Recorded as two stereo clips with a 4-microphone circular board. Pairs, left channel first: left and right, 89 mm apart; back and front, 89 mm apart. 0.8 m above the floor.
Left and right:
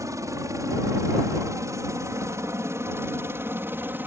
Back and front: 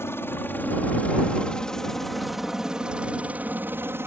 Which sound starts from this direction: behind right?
A helicopter, at 0.0 s.